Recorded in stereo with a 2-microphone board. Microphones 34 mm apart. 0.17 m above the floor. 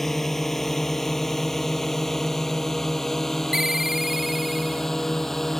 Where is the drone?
5° left (ahead or behind); by 5.6 s 10° left (ahead or behind).